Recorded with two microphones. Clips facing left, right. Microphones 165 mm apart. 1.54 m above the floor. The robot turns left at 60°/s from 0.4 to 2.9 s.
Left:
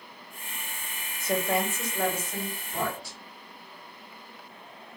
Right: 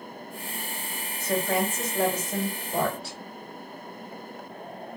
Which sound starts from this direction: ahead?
A woman speaking, at 1.2 s.